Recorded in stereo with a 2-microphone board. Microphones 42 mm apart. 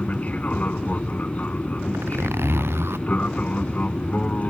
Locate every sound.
0.0 s an aircraft: 35° left (ahead or behind)
1.9 s a zipper: 70° right (ahead or behind)